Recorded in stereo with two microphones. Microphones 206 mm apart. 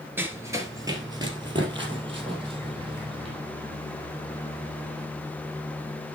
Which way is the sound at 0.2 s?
10° right (ahead or behind).